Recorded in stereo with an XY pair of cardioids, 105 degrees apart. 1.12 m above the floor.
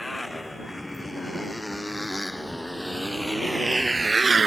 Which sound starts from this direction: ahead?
A motorcycle, at 0.0 s.